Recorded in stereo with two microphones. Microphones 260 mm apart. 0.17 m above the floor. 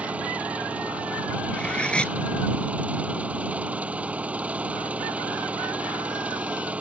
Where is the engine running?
5° right (ahead or behind).